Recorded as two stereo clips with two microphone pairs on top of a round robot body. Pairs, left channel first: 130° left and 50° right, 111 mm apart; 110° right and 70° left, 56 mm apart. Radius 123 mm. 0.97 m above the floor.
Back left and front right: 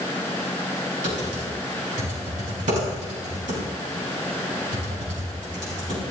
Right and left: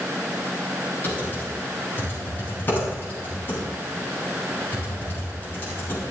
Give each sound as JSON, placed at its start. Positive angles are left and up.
{"t": 1.0, "sound": "typing on a keyboard", "azimuth_deg": -55, "distance_m": 6.0}